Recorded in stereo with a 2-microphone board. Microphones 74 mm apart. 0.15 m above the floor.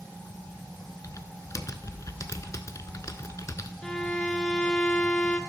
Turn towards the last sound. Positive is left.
turn(degrees=10)  # may be behind; listen again after turning